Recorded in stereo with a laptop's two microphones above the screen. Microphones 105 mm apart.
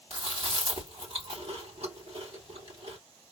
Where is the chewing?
70° right (ahead or behind), 3 m.